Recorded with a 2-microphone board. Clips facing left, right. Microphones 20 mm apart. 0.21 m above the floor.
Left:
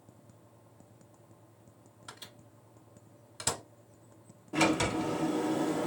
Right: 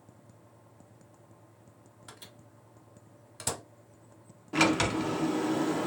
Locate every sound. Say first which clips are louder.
2.1 s a microwave: left 2 dB; 15° left (ahead or behind), 0.8 m
4.5 s a sliding door: right 2 dB; 45° right (ahead or behind), 0.7 m